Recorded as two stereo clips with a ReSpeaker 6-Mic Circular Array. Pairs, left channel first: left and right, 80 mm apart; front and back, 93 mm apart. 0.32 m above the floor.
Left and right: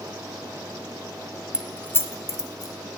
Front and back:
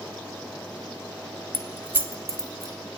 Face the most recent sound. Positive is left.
turn(degrees=130)